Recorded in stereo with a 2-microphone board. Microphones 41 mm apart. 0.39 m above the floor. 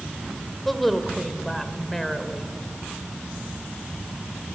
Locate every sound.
0.7 s a woman speaking: 5° left (ahead or behind), 1.6 m